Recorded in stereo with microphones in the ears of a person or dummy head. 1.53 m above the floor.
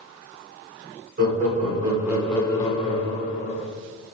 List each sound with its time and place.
1.2 s laughter: 50° right (ahead or behind), 1.0 m; by 3.6 s 55° left (ahead or behind), 1.3 m